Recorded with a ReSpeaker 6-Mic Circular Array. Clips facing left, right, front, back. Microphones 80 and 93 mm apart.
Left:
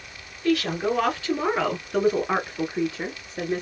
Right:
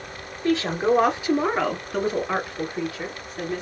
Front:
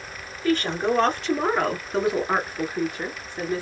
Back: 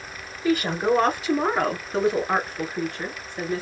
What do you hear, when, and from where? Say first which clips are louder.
0.4 s a woman speaking: right 2 dB, back 1 dB; 110° right, 1.4 m; by 3.6 s 65° left, 1.5 m